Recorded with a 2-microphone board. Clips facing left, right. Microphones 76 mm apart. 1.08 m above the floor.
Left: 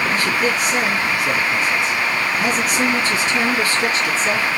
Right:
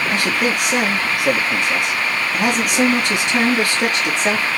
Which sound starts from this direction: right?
A man speaking, at 0.1 s.